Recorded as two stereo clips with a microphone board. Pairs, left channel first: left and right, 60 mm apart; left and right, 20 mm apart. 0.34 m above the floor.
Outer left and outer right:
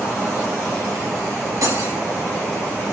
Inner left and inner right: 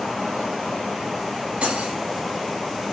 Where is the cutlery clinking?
85° right, 3 m.